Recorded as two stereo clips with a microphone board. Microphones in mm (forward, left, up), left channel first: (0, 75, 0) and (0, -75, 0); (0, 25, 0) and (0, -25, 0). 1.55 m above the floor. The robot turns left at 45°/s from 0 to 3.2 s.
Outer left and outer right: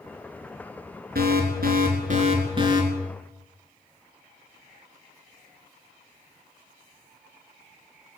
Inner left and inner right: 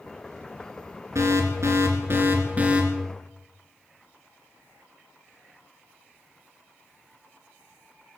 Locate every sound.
1.1 s an alarm: 80° right, 3.5 m; by 2.8 s 155° right, 3.5 m